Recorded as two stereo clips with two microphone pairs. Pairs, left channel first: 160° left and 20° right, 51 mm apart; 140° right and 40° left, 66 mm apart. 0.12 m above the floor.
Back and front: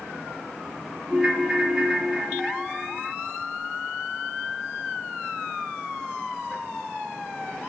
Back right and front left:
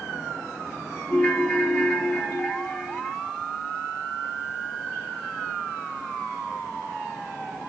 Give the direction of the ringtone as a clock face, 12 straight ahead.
3 o'clock.